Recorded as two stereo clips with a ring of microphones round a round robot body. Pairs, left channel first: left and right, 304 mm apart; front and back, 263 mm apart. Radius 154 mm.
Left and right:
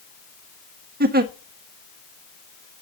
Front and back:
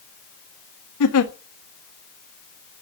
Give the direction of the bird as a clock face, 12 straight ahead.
I don't hear a bird.